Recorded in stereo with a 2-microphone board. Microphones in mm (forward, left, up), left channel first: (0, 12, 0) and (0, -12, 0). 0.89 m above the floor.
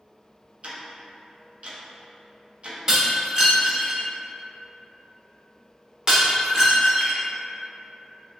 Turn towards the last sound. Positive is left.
turn(degrees=-30)  # may be behind; listen again after turning